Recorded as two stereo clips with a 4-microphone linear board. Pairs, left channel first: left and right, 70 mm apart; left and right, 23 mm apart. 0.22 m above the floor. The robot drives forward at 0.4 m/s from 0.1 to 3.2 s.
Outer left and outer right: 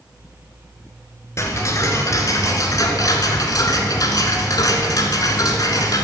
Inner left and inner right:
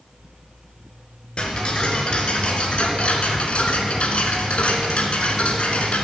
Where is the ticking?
45° left (ahead or behind), 1.6 m; by 6.0 s 65° left (ahead or behind), 1.3 m.